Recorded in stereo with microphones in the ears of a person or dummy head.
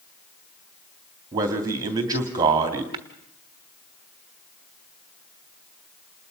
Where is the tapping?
25° right (ahead or behind), 1.2 m.